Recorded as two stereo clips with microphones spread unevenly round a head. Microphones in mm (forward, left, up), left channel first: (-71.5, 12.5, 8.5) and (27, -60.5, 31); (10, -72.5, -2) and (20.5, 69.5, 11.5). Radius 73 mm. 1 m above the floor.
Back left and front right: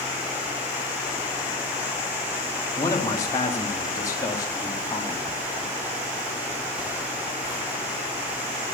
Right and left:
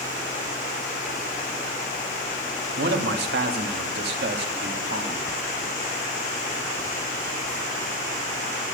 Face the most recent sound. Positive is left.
turn(degrees=80)